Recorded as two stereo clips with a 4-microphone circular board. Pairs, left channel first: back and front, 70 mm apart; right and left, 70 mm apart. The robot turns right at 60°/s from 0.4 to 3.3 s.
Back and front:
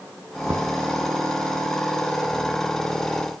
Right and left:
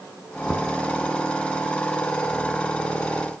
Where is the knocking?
15° right, 1.9 m; by 0.7 s straight ahead, 1.9 m.